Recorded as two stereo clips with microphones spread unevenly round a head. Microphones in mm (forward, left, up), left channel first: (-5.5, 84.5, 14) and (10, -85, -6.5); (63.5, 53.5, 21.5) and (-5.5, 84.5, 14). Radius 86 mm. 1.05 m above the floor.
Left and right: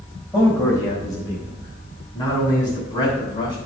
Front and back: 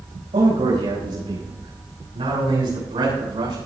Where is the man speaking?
165° left, 5.5 m; by 3.5 s 155° left, 7.5 m.